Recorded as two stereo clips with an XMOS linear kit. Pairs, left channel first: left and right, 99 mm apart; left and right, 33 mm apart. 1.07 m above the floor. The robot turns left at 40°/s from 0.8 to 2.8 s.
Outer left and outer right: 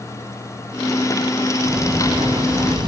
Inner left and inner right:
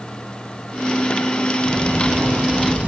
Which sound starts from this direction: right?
A sliding door, at 1.6 s.